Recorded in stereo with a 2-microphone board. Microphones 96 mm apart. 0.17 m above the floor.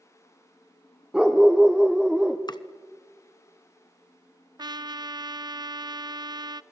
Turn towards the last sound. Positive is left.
turn(degrees=-45)  # may be behind; listen again after turning